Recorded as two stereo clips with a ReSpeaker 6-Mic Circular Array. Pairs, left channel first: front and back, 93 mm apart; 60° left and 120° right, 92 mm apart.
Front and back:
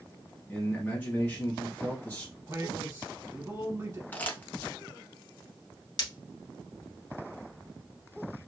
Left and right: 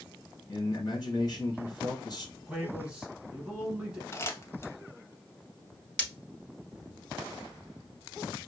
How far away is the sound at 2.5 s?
About 1.5 m.